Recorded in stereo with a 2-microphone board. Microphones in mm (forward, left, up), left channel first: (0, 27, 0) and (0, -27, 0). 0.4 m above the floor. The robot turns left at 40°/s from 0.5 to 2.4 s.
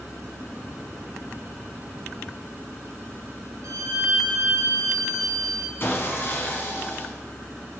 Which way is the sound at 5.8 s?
45° left (ahead or behind).